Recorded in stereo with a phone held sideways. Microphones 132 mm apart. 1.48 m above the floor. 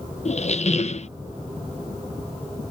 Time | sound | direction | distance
0.2 | a squeak | 55° left (ahead or behind) | ?